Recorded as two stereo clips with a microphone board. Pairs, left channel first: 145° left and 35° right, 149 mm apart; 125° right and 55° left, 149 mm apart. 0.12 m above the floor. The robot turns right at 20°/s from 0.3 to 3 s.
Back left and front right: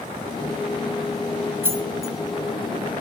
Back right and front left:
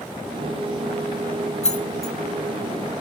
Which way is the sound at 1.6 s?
105° right.